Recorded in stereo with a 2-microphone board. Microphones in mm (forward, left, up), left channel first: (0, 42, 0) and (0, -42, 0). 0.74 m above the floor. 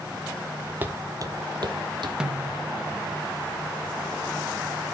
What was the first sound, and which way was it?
Footsteps, 20° right (ahead or behind).